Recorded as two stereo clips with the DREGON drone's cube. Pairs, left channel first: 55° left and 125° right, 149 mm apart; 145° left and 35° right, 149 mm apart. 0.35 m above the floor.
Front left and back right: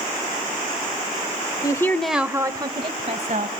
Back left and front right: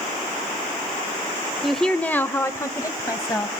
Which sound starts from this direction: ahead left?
A woman speaking, at 1.6 s.